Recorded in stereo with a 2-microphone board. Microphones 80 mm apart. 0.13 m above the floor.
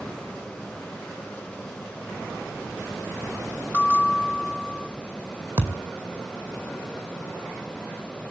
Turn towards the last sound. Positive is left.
turn(degrees=-30)  # may be behind; listen again after turning